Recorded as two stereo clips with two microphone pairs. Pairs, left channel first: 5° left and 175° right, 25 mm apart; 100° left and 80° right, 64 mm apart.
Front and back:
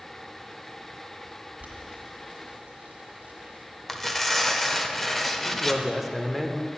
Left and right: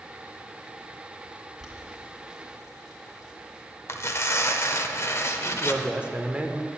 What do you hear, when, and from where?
1.6 s boiling: 165° right, 1.8 m
3.9 s tearing paper: 80° left, 0.6 m
5.5 s a man speaking: 90° right, 0.7 m